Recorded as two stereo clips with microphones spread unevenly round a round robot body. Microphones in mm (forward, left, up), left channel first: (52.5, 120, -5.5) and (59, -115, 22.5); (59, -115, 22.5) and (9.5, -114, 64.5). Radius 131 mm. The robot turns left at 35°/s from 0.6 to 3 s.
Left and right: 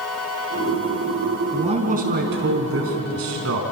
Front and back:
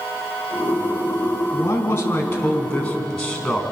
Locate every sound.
1.5 s a man speaking: 20° right, 5 m; by 3.6 s 70° right, 5 m